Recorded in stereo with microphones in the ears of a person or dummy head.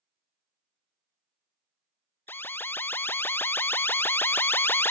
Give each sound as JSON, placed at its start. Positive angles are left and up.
{"t": 2.3, "sound": "an alarm", "side_deg": 10}